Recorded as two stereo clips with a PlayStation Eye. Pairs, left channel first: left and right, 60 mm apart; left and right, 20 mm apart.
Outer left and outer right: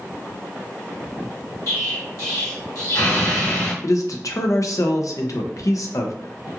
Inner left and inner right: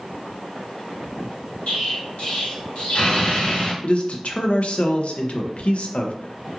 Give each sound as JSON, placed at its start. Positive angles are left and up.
{"t": 1.7, "sound": "an explosion", "side_deg": 80, "distance_m": 1.3}
{"t": 3.8, "sound": "a man speaking", "side_deg": 65, "distance_m": 0.5}